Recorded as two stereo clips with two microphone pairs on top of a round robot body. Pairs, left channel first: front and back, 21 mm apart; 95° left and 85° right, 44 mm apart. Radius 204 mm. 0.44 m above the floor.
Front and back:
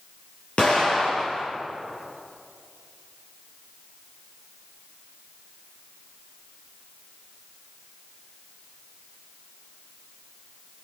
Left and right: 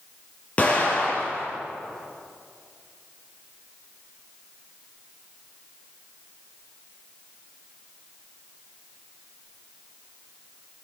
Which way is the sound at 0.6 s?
35° left.